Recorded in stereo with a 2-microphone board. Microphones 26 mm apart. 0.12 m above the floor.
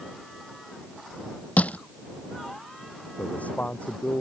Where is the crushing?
70° left (ahead or behind).